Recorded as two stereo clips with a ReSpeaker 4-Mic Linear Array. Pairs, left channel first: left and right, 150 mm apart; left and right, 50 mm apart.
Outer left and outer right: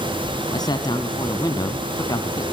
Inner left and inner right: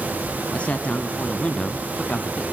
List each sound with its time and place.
0.5 s a man speaking: 30° left (ahead or behind), 1.8 m